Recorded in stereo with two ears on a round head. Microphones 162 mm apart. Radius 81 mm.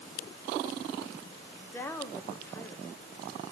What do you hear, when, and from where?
1.6 s a woman speaking: 15° left (ahead or behind), 0.9 m